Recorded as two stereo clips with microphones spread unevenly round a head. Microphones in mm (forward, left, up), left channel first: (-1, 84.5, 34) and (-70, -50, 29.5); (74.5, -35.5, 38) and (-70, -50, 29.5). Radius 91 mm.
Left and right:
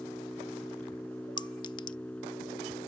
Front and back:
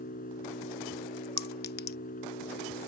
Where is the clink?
5° right.